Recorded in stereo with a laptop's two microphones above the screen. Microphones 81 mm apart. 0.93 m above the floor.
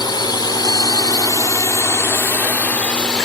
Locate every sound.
0.0 s a drone: 70° left (ahead or behind); by 3.3 s 10° left (ahead or behind)